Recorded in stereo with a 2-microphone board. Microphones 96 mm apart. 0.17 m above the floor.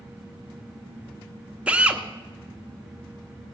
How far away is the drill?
About 0.9 m.